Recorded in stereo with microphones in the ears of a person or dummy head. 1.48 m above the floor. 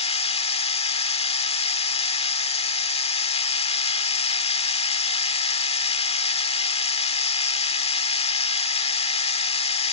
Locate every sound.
0.0 s a machine running: 35° left (ahead or behind)